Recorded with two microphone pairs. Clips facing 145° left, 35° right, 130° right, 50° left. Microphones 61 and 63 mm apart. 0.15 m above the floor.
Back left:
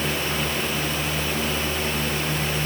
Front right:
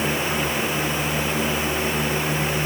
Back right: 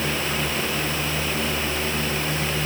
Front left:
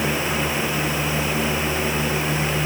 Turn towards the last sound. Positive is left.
No sound to turn to.